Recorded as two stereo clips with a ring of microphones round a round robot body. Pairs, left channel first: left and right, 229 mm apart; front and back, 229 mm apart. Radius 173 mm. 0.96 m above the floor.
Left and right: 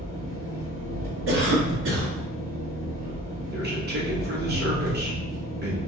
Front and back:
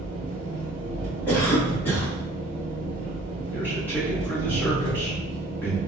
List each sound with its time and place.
0.0 s an engine running: 175° left, 0.8 m
1.3 s a cough: 80° right, 0.9 m
3.5 s a man speaking: 80° right, 1.1 m